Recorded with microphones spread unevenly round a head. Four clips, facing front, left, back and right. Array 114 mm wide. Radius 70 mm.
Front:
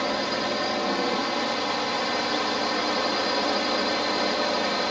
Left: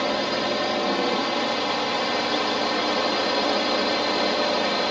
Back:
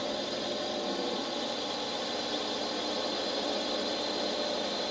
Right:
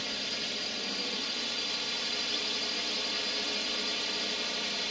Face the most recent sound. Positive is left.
turn(degrees=65)